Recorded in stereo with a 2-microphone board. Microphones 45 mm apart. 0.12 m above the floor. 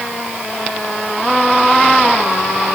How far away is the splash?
I don't hear a splash.